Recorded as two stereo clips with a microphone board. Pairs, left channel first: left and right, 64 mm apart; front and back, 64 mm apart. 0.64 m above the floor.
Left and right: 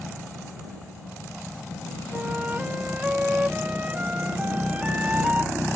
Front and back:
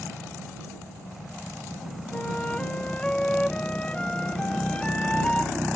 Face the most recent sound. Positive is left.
turn(degrees=-55)